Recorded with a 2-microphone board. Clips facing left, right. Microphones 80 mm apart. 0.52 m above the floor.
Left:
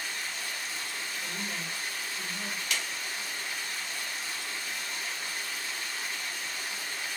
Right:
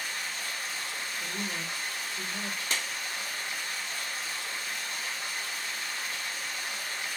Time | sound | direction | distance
0.0 | running water | 55° right (ahead or behind) | 1.5 m
1.2 | a woman speaking | 45° right (ahead or behind) | 1.5 m
2.7 | a clap | 35° right (ahead or behind) | 0.5 m